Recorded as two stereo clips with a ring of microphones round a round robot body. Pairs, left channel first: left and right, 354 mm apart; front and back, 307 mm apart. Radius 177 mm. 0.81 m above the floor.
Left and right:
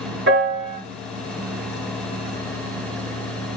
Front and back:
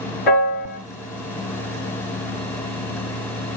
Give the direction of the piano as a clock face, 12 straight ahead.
1 o'clock.